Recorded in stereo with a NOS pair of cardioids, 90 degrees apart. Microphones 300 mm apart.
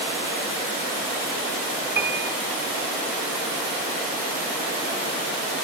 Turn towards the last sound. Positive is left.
turn(degrees=-35)